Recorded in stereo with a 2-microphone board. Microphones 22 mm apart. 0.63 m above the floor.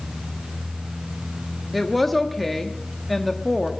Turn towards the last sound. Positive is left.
turn(degrees=0)  # may be behind; listen again after turning